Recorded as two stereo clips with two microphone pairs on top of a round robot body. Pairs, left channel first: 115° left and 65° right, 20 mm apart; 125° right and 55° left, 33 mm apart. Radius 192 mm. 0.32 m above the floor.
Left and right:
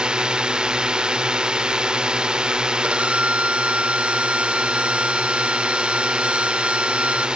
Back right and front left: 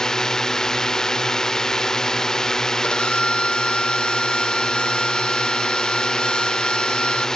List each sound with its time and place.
0.0 s a drone: 55° right
2.8 s a violin: 65° right